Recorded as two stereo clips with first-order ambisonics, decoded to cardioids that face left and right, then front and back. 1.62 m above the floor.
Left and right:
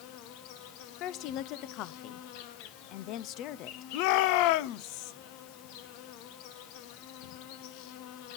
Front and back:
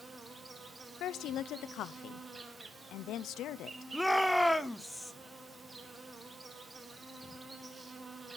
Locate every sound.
0.0 s an insect: 100° left, 1.5 m
1.0 s a woman speaking: 50° left, 0.5 m
3.9 s a shout: 90° left, 0.7 m